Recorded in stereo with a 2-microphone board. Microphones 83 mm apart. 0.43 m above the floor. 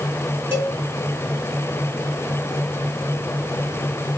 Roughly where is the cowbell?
Right.